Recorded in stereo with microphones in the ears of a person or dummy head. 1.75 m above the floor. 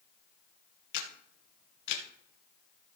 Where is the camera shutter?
65° left (ahead or behind), 2 m.